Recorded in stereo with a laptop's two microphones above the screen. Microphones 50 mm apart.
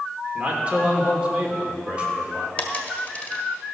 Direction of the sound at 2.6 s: 30° left (ahead or behind).